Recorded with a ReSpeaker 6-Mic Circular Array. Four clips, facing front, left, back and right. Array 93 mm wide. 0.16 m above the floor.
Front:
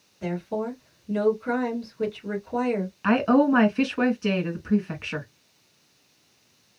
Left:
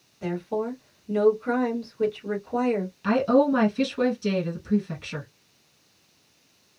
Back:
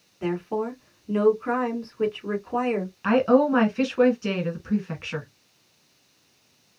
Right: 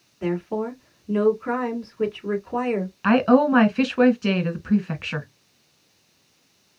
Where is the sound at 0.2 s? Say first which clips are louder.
Right 3 dB, back 2 dB; 145° right, 1.9 m.